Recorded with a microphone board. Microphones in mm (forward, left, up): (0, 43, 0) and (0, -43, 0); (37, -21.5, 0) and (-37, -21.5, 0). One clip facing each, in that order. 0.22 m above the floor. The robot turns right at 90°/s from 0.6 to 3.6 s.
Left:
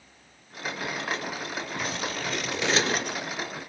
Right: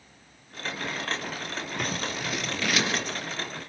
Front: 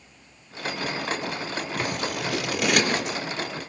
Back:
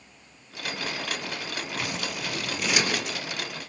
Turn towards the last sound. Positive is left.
turn(degrees=110)